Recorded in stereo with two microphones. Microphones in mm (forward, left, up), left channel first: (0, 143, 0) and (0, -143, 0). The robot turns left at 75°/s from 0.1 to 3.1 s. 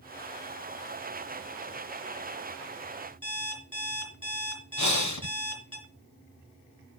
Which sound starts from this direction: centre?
An alarm clock, at 3.2 s.